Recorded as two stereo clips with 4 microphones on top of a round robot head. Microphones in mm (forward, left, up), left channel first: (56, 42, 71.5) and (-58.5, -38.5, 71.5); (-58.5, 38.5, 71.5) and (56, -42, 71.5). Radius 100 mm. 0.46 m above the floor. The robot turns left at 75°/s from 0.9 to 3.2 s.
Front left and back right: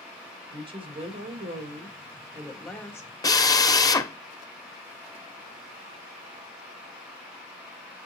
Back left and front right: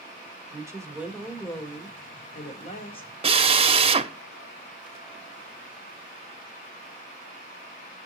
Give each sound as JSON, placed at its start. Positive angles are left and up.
{"t": 0.5, "sound": "a woman speaking", "azimuth_deg": -100, "distance_m": 2.5}
{"t": 3.2, "sound": "a drill", "azimuth_deg": -15, "distance_m": 1.0}